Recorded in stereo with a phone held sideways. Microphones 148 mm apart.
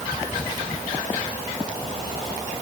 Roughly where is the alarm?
I don't hear an alarm.